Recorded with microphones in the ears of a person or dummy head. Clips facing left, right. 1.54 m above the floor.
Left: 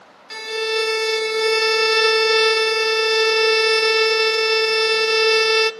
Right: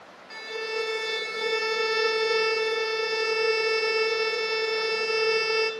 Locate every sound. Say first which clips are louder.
0.3 s a violin: left 9 dB; 75° left (ahead or behind), 0.8 m